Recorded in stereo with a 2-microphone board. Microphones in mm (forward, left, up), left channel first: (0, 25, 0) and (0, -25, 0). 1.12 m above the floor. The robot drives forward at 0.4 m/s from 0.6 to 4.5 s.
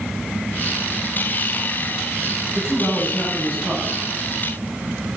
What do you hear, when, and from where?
2.5 s a man speaking: centre (ahead or behind), 7 m